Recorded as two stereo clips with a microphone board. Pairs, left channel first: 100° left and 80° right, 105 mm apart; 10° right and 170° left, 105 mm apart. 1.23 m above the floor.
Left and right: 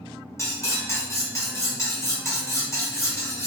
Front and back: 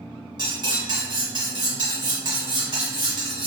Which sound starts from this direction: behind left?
Cutlery clinking, at 0.4 s.